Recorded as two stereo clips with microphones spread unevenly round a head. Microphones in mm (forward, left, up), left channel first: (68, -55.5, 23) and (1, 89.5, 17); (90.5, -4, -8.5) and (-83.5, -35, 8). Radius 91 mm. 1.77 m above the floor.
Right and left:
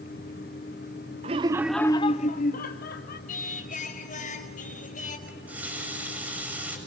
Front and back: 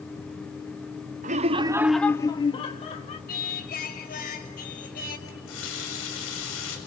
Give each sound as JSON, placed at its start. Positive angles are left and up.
{"t": 1.2, "sound": "laughter", "azimuth_deg": 165, "distance_m": 0.7}
{"t": 3.3, "sound": "singing", "azimuth_deg": -25, "distance_m": 5.0}
{"t": 5.3, "sound": "a running tap", "azimuth_deg": 35, "distance_m": 7.0}